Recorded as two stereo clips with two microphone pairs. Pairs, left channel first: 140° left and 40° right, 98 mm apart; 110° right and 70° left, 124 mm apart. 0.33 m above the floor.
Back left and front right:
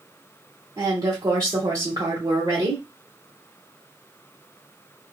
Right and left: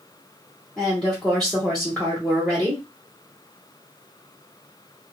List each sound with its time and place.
0.8 s a woman speaking: 30° right, 1.3 m